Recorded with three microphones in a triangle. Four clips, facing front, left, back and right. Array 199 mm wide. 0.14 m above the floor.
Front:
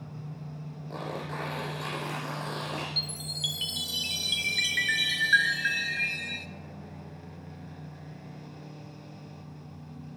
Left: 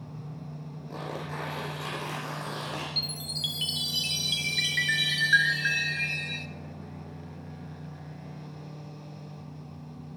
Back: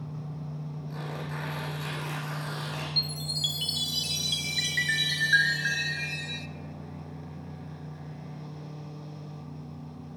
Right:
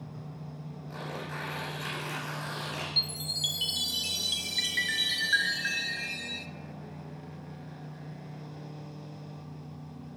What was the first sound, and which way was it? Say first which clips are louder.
Tearing paper: left 3 dB, front 3 dB; 25° left.